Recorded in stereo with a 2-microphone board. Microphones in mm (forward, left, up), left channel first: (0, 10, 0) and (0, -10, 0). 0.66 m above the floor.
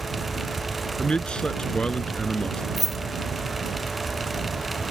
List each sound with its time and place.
1.0 s a man speaking: 55° left (ahead or behind)
2.8 s keys jangling: 5° right (ahead or behind)